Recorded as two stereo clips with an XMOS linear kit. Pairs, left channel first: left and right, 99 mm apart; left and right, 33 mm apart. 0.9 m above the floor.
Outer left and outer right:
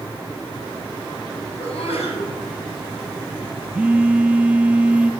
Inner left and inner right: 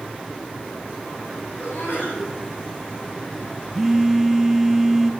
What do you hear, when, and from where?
1.6 s a sneeze: 75° left (ahead or behind), 8.5 m
3.7 s a phone buzzing: 15° right (ahead or behind), 0.8 m